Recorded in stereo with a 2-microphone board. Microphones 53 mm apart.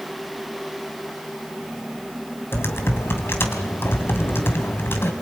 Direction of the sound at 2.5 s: 50° left (ahead or behind).